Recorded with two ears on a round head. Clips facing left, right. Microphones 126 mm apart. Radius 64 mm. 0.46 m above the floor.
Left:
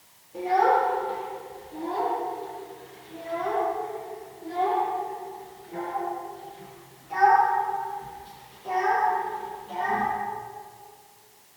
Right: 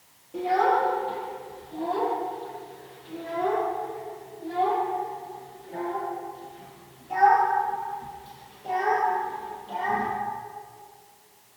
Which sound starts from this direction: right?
A child speaking, at 0.3 s.